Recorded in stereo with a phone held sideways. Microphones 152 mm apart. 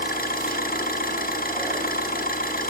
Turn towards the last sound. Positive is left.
turn(degrees=80)